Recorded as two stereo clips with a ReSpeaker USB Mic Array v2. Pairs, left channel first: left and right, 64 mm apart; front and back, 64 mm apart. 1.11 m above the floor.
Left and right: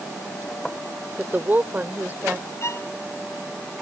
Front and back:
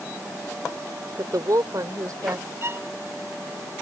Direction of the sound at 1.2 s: 155° right.